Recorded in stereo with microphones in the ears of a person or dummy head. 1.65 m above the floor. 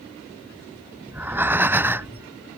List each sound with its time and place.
1.1 s breathing: 5° right (ahead or behind)